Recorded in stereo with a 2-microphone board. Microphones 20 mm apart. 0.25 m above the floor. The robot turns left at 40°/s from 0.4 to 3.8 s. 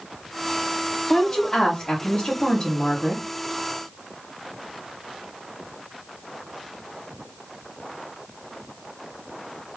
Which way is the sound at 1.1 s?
130° left.